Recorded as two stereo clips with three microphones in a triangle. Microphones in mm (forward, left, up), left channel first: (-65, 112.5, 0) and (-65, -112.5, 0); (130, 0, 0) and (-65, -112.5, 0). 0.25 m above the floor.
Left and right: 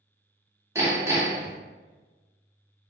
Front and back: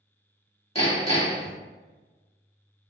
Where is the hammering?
20° right, 1.3 m.